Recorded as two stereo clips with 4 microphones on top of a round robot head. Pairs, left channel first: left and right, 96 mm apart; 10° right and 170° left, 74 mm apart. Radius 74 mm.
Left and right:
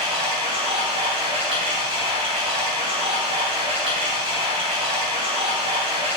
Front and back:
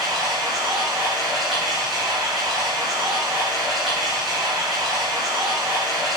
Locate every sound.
0.0 s running water: 105° right, 2.5 m